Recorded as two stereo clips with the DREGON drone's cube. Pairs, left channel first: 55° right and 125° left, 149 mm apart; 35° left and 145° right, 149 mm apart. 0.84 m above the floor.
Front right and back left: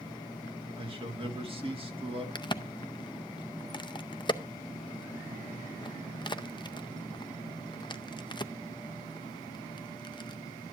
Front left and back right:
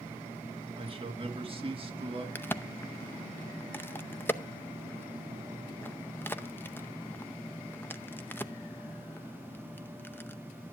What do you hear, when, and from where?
0.8 s a man speaking: 170° left, 1.8 m
2.4 s a crack: 30° right, 0.6 m